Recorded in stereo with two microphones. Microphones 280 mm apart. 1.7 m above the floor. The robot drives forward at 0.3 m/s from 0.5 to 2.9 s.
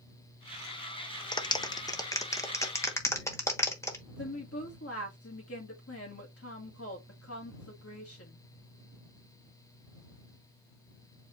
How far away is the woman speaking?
About 1.6 m.